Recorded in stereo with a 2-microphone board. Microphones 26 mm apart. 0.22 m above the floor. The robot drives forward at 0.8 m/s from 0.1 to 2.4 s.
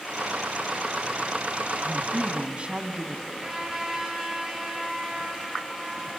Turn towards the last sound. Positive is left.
turn(degrees=-25)  # may be behind; listen again after turning